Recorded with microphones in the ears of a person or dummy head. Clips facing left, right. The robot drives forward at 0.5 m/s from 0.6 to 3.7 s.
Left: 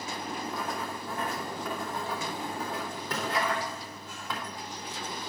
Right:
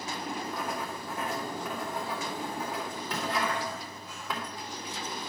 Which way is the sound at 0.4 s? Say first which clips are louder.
Even; 5° right (ahead or behind).